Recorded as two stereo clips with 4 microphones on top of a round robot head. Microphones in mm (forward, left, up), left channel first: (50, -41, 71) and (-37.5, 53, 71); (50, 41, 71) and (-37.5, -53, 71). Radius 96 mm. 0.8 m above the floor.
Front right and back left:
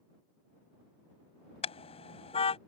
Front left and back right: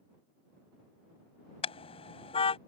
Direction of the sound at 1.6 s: Straight ahead.